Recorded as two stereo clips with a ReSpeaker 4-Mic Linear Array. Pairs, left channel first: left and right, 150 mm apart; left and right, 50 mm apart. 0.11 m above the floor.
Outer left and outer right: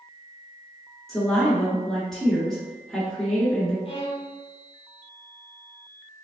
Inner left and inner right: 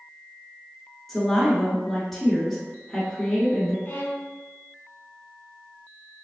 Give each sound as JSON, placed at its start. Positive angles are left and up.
{"t": 1.1, "sound": "a woman speaking", "side_deg": 0, "distance_m": 1.5}
{"t": 3.9, "sound": "a violin", "side_deg": 40, "distance_m": 0.8}